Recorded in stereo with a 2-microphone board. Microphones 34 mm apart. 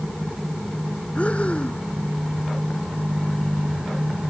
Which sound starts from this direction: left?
Breathing, at 1.1 s.